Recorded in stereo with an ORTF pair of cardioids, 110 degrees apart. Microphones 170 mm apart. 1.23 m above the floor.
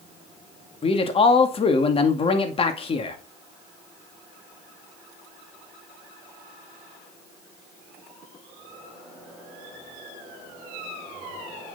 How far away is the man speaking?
About 2 m.